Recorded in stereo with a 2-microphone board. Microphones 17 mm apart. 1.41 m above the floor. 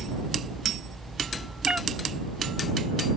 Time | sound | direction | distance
1.7 | a cat meowing | 80° right | ?